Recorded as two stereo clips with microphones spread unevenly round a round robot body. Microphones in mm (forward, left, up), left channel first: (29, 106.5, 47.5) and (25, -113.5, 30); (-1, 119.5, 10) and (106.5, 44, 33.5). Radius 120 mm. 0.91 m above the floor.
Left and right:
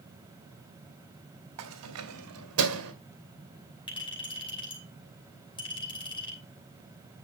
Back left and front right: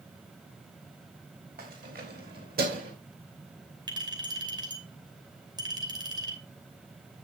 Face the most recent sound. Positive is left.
turn(degrees=20)